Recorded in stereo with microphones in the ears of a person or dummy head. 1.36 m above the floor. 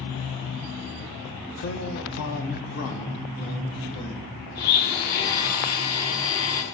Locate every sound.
1.6 s a man speaking: 70° left (ahead or behind), 0.8 m; by 4.3 s 30° left (ahead or behind), 1.8 m
4.5 s a blender: 55° left (ahead or behind), 1.6 m